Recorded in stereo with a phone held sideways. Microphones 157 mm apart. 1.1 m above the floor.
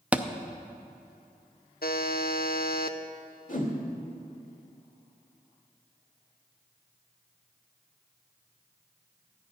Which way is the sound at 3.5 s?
60° left (ahead or behind).